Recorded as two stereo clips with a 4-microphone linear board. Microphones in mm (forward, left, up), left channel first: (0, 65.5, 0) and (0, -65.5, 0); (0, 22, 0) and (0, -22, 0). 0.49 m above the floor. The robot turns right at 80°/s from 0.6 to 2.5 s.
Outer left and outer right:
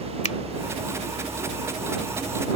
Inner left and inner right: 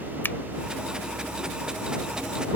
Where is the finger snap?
60° left (ahead or behind).